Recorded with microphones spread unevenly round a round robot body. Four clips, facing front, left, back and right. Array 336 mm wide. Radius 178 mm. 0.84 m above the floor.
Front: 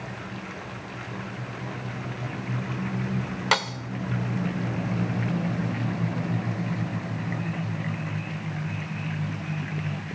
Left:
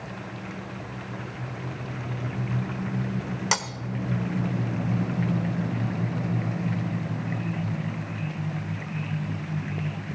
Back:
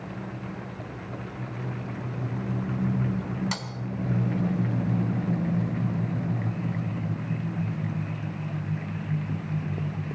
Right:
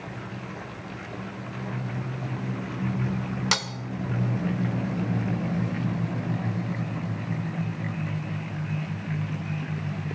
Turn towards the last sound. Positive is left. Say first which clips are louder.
# left 3 dB, front 10 dB
turn(degrees=5)